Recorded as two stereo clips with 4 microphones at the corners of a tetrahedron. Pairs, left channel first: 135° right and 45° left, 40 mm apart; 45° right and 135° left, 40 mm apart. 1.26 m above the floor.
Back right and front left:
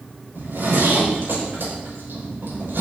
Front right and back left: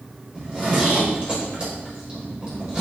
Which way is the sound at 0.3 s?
70° left.